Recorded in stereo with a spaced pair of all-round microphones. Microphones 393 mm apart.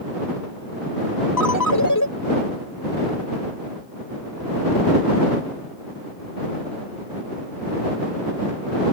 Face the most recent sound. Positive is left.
turn(degrees=50)  # may be behind; listen again after turning